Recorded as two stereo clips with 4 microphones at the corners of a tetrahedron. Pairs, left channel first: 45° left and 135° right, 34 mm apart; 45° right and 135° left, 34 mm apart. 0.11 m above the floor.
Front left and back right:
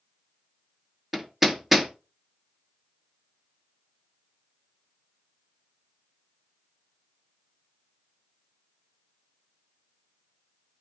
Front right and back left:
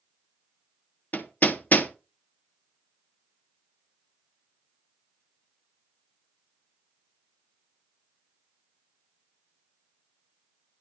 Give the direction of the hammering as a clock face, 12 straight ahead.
2 o'clock.